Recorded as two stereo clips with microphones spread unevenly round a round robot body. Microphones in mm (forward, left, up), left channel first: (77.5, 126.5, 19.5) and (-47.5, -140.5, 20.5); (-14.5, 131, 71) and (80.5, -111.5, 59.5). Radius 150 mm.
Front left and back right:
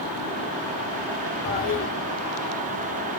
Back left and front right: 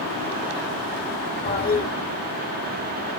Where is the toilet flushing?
70° left, 1.0 m.